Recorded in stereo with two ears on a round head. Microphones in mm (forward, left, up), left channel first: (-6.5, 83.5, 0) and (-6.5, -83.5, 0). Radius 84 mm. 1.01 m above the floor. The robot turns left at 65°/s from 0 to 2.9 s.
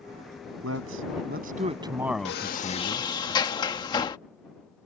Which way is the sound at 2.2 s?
65° left.